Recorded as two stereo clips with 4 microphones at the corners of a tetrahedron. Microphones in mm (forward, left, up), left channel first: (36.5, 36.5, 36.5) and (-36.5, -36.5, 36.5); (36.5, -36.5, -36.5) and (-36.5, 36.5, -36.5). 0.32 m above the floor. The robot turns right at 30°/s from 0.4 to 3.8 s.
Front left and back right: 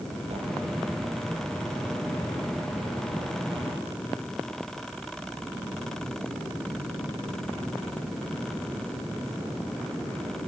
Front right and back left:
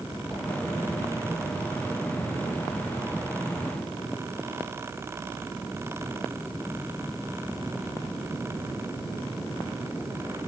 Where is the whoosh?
125° right, 9 m; by 0.4 s 120° right, 9 m.